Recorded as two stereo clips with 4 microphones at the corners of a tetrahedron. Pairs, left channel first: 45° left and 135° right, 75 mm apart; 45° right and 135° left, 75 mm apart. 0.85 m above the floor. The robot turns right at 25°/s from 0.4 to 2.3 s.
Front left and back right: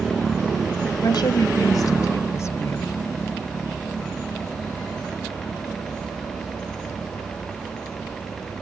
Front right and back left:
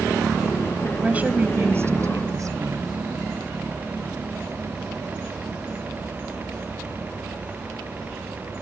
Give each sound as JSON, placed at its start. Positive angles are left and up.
{"t": 1.0, "sound": "a woman speaking", "azimuth_deg": 60}